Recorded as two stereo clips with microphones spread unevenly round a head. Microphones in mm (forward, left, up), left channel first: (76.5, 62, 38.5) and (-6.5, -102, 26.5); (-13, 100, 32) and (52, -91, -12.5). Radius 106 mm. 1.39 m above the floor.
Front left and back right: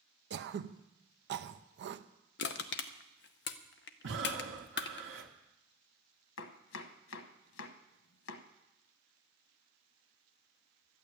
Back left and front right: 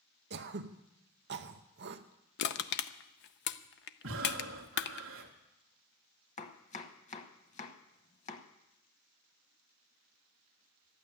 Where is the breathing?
100° right, 1.7 m.